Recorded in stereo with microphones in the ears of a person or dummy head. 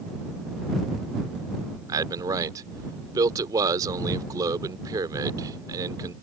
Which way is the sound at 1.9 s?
20° right (ahead or behind).